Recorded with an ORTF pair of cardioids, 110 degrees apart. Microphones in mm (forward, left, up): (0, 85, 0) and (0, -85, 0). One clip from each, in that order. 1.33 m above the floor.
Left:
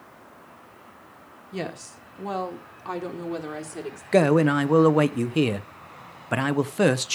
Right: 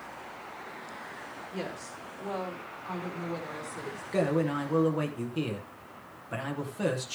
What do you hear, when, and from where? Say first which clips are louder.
1.5 s a woman speaking: left 6 dB; 45° left, 1.8 m; by 4.0 s 65° left, 3.5 m
4.1 s a man speaking: left 9 dB; 65° left, 0.8 m